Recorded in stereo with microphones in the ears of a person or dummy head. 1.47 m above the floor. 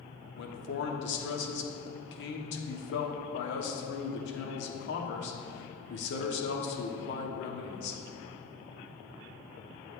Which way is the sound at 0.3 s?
65° left (ahead or behind).